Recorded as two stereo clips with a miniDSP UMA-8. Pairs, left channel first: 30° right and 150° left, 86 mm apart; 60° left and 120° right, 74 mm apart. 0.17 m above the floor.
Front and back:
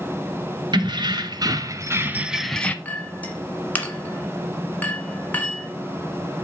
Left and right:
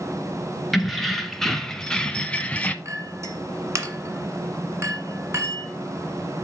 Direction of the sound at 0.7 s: 150° left.